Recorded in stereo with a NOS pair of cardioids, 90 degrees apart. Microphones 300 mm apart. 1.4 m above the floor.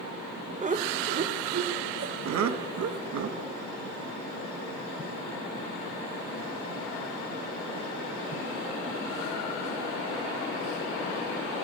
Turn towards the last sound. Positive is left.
turn(degrees=-75)